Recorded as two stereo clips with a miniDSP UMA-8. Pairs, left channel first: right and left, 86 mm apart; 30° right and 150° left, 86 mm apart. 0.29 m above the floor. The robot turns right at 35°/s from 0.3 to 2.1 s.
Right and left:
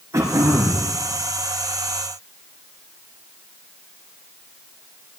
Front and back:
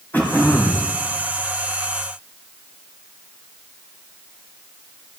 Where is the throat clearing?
40° left, 3 m; by 0.9 s 60° left, 3 m.